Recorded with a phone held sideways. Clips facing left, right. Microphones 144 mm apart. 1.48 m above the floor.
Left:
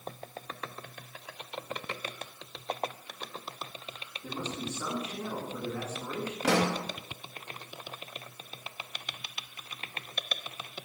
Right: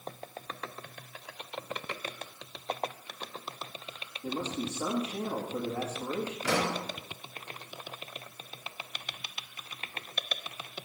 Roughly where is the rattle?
I don't hear a rattle.